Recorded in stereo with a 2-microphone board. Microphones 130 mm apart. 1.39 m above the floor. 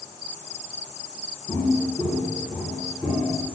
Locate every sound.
1.5 s footsteps: 15° left (ahead or behind), 1.4 m; by 3.4 s 5° right (ahead or behind), 1.9 m